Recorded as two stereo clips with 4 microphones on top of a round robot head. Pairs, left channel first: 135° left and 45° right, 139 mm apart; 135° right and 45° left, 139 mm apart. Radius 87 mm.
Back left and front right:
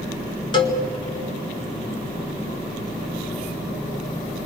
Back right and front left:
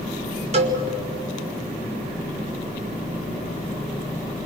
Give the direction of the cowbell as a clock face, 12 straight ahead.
9 o'clock.